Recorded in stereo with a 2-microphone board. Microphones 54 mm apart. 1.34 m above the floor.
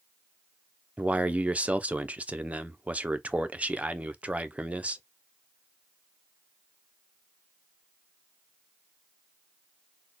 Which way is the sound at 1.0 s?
25° right (ahead or behind).